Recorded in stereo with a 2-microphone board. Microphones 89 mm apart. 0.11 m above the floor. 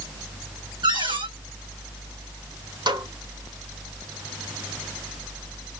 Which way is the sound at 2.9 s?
65° right (ahead or behind).